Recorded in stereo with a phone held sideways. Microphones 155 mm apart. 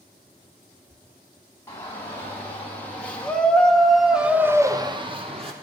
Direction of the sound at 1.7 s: 15° left (ahead or behind).